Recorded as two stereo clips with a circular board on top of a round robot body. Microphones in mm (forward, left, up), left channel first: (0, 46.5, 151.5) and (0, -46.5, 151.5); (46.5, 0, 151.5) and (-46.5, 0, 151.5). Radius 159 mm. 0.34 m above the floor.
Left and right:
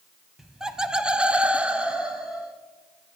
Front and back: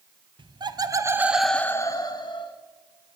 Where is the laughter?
175° right, 1.3 m; by 2.5 s 5° right, 1.4 m.